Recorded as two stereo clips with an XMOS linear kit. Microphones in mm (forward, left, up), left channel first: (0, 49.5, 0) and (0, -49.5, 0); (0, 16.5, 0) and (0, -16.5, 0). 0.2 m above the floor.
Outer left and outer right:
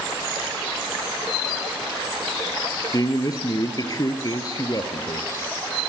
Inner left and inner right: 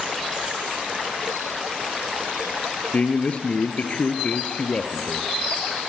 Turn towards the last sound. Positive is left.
turn(degrees=45)  # may be behind; listen again after turning